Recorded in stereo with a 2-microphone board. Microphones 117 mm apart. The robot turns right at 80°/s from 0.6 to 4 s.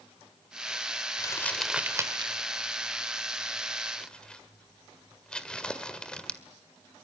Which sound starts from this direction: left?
Crumpling, at 1.2 s.